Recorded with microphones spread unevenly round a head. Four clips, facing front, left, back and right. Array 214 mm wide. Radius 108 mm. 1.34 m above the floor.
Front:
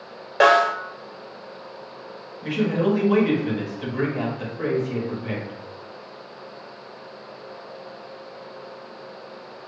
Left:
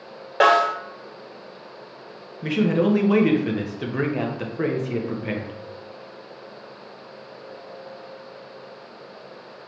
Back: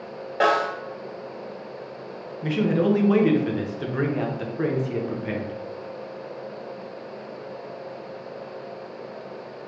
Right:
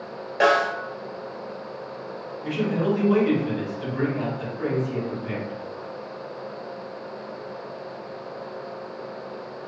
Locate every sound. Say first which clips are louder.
0.4 s a snare drum: left 3 dB, front 5 dB; 55° left, 1.4 m
2.4 s a man speaking: left 4 dB, back 1 dB; 110° left, 1.0 m